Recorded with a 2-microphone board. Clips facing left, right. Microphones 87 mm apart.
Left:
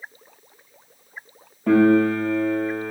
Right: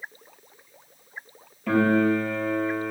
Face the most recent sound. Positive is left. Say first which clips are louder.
# left 5 dB
turn(degrees=40)  # may be behind; listen again after turning